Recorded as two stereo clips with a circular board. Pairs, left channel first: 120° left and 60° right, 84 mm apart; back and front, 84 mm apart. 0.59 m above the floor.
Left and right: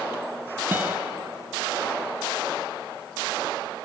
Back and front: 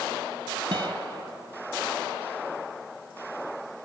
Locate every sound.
0.7 s a guitar: 5° left, 0.9 m